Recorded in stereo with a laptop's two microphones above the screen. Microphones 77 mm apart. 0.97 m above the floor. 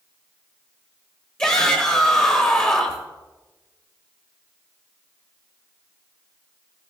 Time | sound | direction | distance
1.4 | a shout | 25° left (ahead or behind) | 1.1 m